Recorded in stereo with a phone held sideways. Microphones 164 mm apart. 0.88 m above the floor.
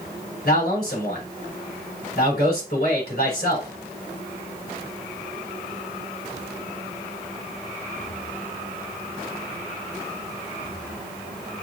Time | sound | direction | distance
0.5 | a man speaking | 75° left (ahead or behind) | 4 m